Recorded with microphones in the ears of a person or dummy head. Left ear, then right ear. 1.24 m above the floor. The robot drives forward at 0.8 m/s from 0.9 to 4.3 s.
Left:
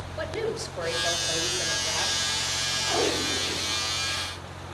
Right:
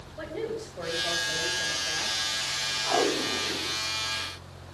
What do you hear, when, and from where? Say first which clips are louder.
0.2 s a woman speaking: left 4 dB; 35° left (ahead or behind), 6 m; by 2.2 s 40° left (ahead or behind), 5 m
2.9 s tape being pulled: right 1 dB; 35° right (ahead or behind), 2.5 m; by 3.8 s 25° right (ahead or behind), 3.5 m